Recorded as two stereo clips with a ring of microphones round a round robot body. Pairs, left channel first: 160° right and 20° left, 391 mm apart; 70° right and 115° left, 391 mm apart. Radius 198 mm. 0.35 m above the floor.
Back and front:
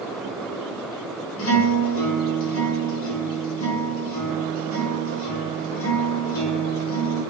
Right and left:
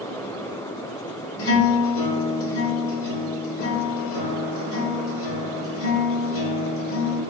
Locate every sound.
1.4 s a guitar: 110° right, 0.8 m